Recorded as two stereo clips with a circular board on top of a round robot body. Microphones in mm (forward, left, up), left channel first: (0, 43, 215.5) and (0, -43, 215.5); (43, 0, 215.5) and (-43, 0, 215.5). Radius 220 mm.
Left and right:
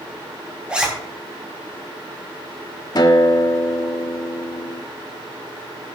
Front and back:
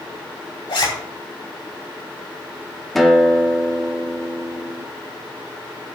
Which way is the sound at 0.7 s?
10° right.